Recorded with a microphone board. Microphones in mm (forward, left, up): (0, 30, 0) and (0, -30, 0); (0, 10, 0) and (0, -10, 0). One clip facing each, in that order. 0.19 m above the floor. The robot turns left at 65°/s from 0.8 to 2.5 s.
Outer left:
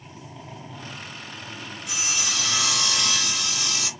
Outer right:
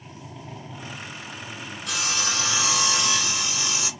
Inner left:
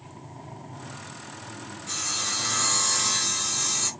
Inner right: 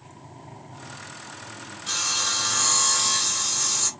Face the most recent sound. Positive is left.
turn(degrees=-155)